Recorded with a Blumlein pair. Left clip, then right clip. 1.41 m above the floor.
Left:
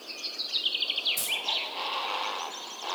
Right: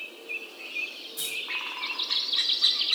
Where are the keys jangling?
30° left, 9 m.